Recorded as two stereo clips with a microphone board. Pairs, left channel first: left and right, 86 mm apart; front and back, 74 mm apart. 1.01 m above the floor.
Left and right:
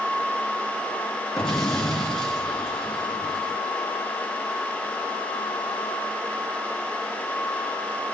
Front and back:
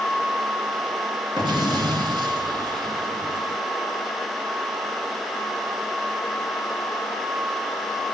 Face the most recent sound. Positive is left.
turn(degrees=170)